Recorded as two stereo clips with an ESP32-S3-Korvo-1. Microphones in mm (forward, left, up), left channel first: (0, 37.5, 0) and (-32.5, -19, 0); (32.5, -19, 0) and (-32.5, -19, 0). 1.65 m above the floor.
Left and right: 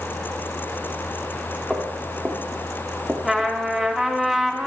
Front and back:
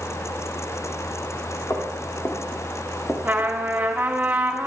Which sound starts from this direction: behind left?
A trumpet, at 3.2 s.